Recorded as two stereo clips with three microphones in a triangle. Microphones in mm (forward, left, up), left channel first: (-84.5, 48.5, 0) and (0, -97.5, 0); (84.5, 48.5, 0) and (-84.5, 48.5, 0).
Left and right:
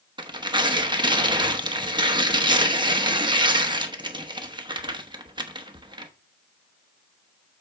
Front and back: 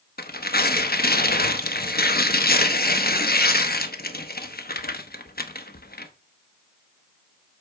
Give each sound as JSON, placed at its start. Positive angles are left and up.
{"t": 0.2, "sound": "tearing paper", "azimuth_deg": 0, "distance_m": 0.9}